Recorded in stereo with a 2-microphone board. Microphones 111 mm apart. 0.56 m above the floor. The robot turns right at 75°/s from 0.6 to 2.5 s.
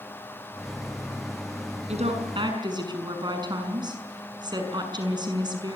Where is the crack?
I don't hear a crack.